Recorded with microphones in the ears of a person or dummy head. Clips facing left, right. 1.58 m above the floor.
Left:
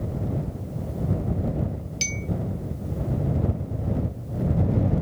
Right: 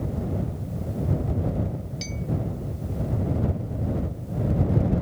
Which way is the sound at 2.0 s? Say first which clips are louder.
Even; 30° left (ahead or behind).